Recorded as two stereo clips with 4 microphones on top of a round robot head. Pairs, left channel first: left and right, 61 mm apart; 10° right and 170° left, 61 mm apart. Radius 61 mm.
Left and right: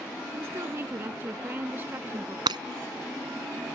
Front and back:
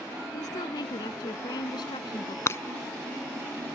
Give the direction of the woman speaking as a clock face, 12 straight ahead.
1 o'clock.